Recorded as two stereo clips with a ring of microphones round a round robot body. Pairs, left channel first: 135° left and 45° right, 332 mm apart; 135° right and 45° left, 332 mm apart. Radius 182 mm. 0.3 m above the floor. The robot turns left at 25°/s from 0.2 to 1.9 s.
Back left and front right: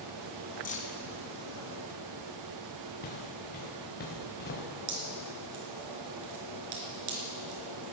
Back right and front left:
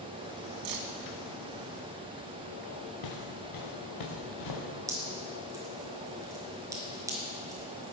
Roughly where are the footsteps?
Behind.